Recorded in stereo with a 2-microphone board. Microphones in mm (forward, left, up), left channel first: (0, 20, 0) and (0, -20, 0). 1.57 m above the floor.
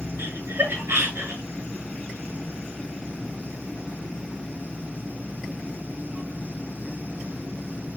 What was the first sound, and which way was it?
Laughter, 85° right.